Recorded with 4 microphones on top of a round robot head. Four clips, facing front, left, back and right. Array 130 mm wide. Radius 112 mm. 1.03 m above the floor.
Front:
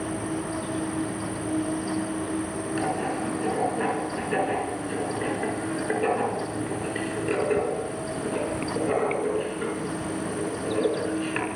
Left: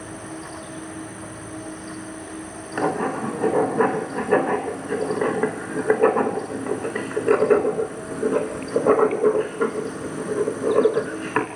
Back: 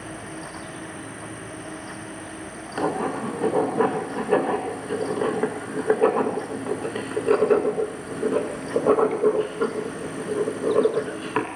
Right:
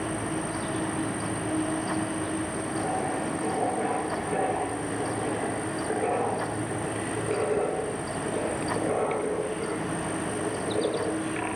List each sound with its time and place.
0.0 s an insect: 15° right, 4.5 m
2.8 s writing: 125° left, 1.9 m